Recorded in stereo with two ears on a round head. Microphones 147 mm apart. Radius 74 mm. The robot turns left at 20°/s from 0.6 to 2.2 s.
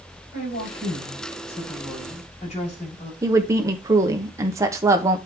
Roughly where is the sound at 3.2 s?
Centre.